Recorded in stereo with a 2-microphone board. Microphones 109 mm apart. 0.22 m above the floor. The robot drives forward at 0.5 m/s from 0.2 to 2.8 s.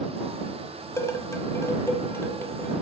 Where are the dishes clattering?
25° left (ahead or behind), 0.7 m; by 2.7 s 15° left (ahead or behind), 1.1 m.